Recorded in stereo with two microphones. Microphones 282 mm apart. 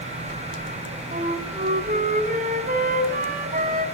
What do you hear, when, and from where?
1.1 s a flute: 30° right (ahead or behind), 1.8 m